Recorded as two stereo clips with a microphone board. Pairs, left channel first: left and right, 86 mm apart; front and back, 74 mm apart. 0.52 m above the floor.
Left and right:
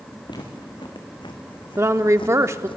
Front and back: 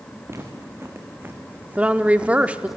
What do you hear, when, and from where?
0.3 s footsteps: 125° left, 3 m; by 2.8 s 95° left, 1.4 m
1.8 s a woman speaking: 120° right, 0.8 m